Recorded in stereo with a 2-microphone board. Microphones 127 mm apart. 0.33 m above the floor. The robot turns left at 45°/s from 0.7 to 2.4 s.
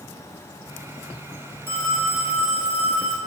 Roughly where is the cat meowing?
No cat meowing in this recording.